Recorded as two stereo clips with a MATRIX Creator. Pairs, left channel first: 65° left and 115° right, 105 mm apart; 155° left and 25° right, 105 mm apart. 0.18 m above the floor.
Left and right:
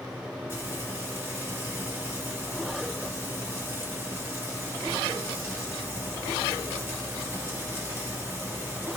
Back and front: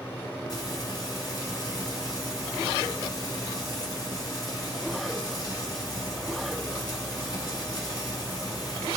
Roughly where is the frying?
Behind.